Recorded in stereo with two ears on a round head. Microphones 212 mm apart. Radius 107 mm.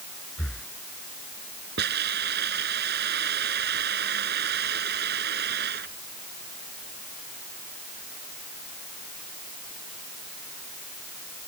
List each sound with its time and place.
0.4 s breathing: centre (ahead or behind)
1.8 s a hiss: 45° right (ahead or behind)